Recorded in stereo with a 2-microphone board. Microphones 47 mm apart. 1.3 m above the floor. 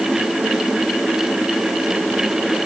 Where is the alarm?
I don't hear an alarm.